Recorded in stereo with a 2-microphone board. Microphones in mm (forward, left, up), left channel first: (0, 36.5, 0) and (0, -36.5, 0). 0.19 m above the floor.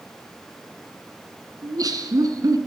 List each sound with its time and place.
1.6 s laughter: 55° right (ahead or behind), 1.8 m